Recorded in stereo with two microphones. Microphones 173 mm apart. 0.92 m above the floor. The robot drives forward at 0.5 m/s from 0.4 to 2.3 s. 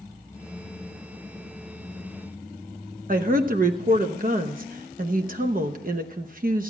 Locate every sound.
3.1 s a woman speaking: 55° right (ahead or behind), 0.9 m